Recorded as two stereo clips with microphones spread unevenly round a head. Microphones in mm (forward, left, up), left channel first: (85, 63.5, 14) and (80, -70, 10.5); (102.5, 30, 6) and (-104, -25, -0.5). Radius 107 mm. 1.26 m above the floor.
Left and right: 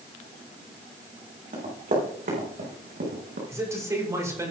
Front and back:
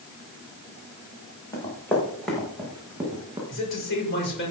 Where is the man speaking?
25° right, 5.5 m.